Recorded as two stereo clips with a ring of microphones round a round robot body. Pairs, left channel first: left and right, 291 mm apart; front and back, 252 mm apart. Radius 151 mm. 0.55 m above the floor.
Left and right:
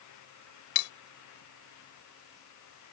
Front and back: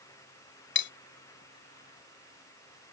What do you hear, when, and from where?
0.8 s cutlery clinking: 45° left